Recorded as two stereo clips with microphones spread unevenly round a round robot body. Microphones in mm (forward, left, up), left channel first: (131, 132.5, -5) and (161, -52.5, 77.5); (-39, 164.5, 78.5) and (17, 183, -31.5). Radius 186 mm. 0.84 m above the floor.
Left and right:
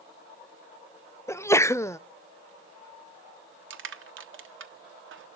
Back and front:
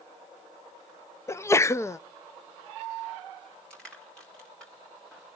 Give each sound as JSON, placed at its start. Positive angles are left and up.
{"t": 1.3, "sound": "a sneeze", "azimuth_deg": 50, "distance_m": 0.6}
{"t": 3.7, "sound": "crushing", "azimuth_deg": -60, "distance_m": 1.4}